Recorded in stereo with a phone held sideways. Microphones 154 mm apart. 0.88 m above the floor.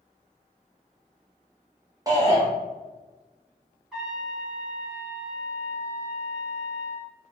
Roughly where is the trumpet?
Centre.